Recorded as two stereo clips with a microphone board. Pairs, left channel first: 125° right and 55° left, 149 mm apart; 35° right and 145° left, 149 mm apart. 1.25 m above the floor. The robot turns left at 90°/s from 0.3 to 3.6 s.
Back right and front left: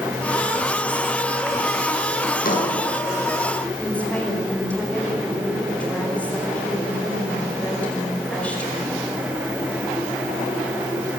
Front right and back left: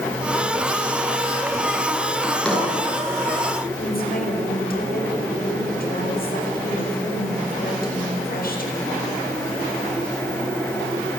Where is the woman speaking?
45° right, 5 m.